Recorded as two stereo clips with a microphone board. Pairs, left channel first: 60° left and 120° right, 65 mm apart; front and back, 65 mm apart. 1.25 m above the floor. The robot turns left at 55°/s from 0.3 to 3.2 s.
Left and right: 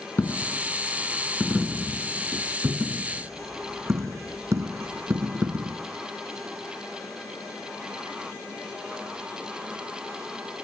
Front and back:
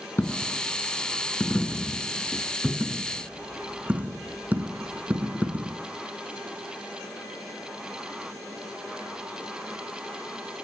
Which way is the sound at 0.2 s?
30° left.